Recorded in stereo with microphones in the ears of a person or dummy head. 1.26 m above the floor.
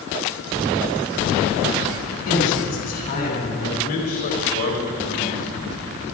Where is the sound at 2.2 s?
50° left (ahead or behind), 8 m.